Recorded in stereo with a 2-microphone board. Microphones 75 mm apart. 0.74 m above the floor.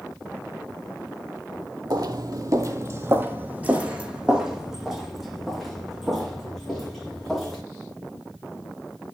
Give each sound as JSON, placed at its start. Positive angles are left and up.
{"t": 1.9, "sound": "footsteps", "side_deg": -60, "distance_m": 1.3}